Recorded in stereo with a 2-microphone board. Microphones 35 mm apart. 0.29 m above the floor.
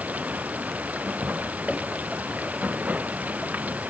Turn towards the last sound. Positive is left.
turn(degrees=-50)  # may be behind; listen again after turning